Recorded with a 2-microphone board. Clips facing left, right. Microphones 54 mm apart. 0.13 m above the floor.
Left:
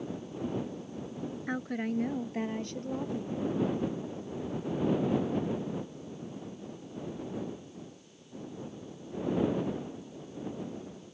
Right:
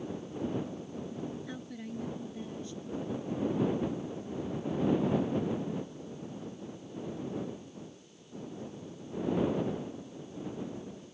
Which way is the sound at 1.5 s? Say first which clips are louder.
Left 8 dB; 50° left (ahead or behind).